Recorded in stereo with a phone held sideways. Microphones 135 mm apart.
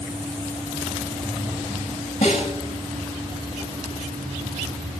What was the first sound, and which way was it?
A snare drum, 65° left (ahead or behind).